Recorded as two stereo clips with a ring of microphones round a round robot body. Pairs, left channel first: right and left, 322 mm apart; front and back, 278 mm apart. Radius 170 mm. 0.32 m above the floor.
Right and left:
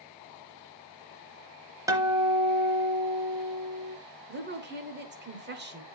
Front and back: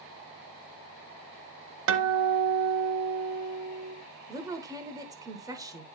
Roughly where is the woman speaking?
Left.